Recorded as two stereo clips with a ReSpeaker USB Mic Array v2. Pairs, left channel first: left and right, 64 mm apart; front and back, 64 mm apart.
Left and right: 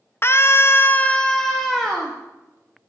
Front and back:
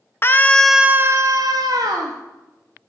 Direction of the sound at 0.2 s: 45° left.